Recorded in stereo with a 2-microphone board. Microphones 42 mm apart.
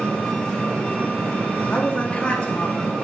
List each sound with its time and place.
0.0 s an engine running: 15° left (ahead or behind), 4 m
1.7 s a woman speaking: 30° left (ahead or behind), 1.9 m